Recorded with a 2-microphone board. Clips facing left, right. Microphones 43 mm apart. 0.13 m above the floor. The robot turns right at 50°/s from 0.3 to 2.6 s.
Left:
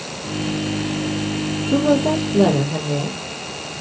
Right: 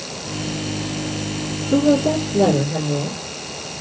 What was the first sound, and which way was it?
A woman speaking, 20° left.